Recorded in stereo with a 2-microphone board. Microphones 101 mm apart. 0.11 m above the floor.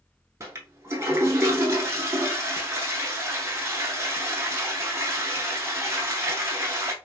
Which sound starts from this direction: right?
A toilet flushing, at 0.4 s.